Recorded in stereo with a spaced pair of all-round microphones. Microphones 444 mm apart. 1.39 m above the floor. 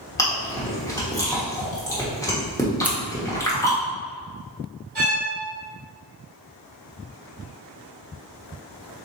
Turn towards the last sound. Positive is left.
turn(degrees=-20)  # may be behind; listen again after turning